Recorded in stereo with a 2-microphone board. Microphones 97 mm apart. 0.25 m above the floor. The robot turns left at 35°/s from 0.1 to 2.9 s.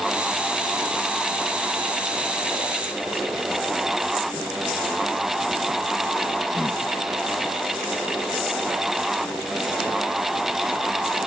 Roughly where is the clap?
No clap in this recording.